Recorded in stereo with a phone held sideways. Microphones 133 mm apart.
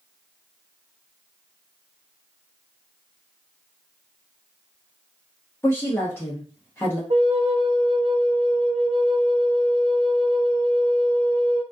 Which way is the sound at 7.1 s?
50° right (ahead or behind).